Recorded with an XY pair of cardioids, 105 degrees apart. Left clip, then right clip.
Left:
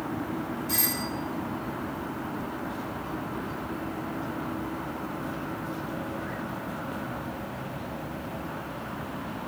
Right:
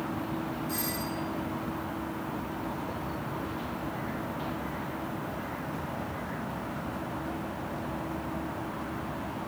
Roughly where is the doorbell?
Ahead left.